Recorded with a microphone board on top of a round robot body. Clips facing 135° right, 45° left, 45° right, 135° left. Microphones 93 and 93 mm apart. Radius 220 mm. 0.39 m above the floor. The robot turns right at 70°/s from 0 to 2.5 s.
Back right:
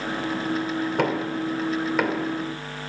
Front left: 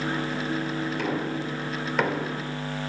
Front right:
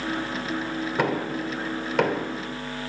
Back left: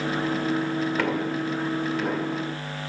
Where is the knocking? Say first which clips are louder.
Back right 4 dB, even; 115° right, 3 m; by 2.3 s 25° right, 3 m.